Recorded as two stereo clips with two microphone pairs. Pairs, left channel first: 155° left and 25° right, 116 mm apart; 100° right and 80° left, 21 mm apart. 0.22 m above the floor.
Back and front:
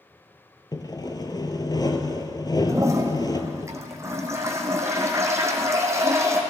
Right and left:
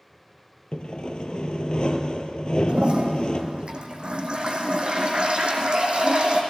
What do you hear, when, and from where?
0.7 s sawing: 145° right, 0.9 m
2.7 s a toilet flushing: 40° left, 1.7 m